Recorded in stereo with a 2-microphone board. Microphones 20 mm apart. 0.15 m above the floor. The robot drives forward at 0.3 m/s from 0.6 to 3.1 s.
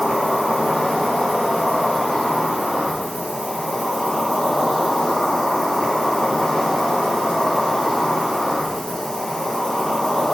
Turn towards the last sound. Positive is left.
turn(degrees=45)  # may be behind; listen again after turning